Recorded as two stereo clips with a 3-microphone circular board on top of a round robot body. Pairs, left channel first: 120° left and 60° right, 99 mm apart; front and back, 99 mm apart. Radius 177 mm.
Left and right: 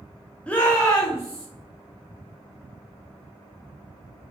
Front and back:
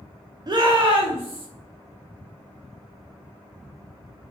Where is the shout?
170° right, 0.6 m; by 1.5 s 170° left, 1.1 m.